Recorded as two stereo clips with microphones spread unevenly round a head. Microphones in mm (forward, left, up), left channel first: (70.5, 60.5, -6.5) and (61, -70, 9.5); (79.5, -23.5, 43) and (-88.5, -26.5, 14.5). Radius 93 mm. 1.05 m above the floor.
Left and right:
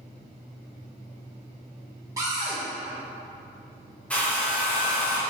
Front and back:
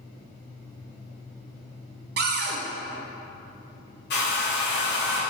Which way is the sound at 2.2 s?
170° right.